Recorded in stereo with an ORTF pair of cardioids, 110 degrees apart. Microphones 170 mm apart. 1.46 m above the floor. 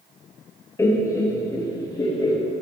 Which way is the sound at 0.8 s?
15° left.